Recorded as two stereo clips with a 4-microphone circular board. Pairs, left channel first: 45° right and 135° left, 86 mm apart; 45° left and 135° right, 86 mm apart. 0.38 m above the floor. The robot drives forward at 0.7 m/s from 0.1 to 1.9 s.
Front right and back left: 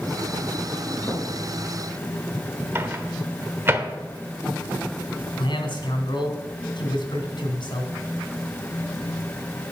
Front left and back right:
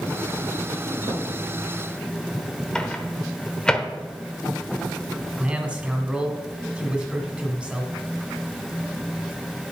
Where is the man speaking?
60° right, 2.5 m.